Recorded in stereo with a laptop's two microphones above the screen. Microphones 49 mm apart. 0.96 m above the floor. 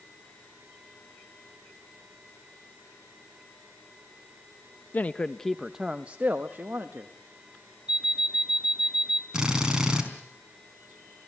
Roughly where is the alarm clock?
Centre.